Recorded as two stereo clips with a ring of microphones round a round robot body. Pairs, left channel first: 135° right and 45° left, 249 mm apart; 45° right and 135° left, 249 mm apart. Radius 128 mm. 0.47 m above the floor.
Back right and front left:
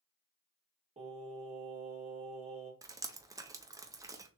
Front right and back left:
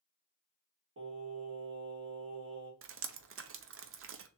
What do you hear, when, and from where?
1.0 s singing: 105° left, 1.7 m
2.8 s dripping: 120° left, 0.6 m